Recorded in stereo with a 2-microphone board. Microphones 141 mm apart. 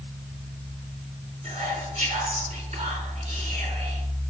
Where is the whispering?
50° right (ahead or behind), 4 m.